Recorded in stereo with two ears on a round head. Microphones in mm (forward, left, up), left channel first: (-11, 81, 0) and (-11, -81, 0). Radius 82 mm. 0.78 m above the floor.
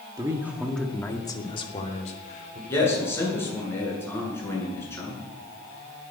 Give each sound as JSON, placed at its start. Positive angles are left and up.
{"t": 0.2, "sound": "a man speaking", "side_deg": -20, "distance_m": 1.9}
{"t": 2.7, "sound": "a man speaking", "side_deg": 15, "distance_m": 8.5}